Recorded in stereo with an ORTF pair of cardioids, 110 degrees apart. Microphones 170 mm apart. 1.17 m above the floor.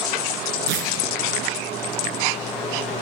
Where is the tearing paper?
70° right, 4 m.